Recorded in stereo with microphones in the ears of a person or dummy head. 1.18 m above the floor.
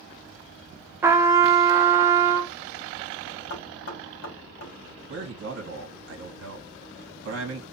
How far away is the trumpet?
About 0.6 m.